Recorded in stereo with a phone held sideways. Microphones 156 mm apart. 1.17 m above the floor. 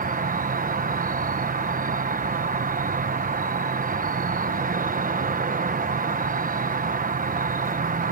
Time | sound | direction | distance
0.0 | an insect | 55° right (ahead or behind) | ?